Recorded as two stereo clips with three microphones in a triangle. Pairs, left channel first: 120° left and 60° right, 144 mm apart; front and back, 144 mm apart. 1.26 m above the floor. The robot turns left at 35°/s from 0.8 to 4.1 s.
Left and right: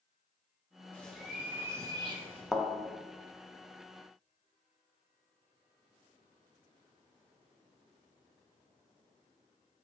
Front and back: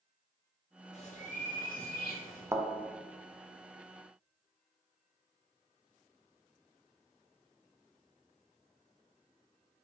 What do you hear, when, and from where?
0.9 s a bird: 40° left, 1.0 m; by 2.5 s 15° right, 1.0 m
2.5 s a thud: 150° right, 0.6 m; by 2.7 s 155° right, 0.6 m